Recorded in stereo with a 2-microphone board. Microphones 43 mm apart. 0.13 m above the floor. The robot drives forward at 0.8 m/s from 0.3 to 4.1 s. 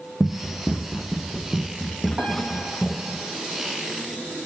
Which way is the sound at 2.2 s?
30° right (ahead or behind).